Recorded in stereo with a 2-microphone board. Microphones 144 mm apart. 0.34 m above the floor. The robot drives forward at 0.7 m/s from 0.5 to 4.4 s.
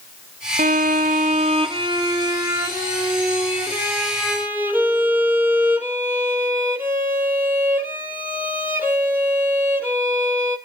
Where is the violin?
70° right (ahead or behind), 0.6 m; by 10.6 s 10° right (ahead or behind), 2.5 m.